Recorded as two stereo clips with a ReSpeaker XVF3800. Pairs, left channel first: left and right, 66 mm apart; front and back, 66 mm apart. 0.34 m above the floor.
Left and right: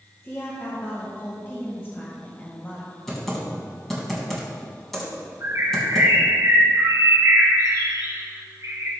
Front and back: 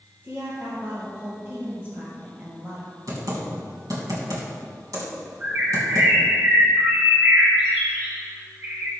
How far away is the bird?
About 4.5 m.